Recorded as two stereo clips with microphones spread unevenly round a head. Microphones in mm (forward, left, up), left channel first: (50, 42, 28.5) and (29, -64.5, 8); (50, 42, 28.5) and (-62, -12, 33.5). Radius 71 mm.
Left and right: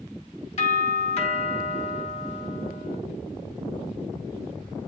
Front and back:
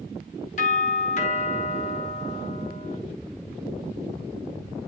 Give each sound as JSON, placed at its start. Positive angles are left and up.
{"t": 0.6, "sound": "a doorbell", "azimuth_deg": 50, "distance_m": 5.5}